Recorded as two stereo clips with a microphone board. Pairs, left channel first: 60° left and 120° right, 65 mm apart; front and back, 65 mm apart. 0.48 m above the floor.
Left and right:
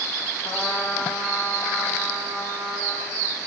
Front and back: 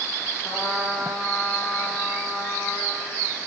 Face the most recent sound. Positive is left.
turn(degrees=90)